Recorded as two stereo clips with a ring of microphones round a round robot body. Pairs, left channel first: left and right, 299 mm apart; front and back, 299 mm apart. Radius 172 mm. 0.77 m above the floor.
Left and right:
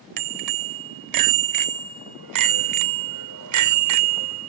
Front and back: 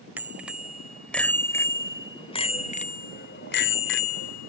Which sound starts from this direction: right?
A bicycle bell, at 0.2 s.